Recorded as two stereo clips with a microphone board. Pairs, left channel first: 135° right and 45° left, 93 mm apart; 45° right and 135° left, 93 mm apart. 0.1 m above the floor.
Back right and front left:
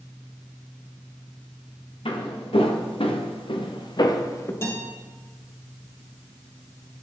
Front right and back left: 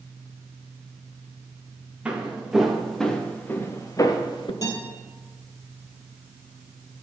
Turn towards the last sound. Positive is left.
turn(degrees=-85)